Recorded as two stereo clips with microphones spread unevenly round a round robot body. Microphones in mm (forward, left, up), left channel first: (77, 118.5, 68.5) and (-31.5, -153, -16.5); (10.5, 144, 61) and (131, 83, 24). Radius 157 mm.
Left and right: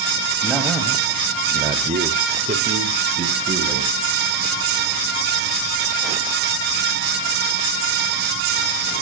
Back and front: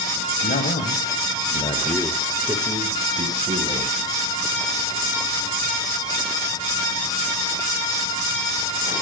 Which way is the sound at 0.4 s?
165° left.